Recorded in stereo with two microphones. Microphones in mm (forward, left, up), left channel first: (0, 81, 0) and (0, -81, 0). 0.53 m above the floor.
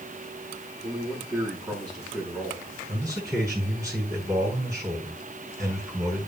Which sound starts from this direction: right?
A man speaking, at 0.8 s.